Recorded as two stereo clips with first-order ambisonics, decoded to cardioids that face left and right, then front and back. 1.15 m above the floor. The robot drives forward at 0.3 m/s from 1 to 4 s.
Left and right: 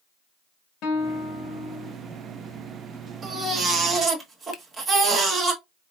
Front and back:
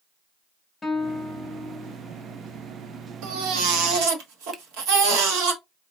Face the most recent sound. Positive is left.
turn(degrees=115)